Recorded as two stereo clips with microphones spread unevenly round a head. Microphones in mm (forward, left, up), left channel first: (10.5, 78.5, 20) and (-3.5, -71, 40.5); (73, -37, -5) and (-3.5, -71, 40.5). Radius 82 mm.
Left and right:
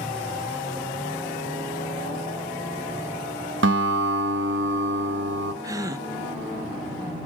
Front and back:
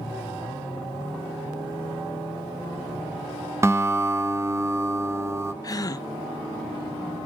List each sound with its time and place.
3.6 s a guitar: 105° right, 1.2 m
5.6 s a gasp: 25° right, 0.8 m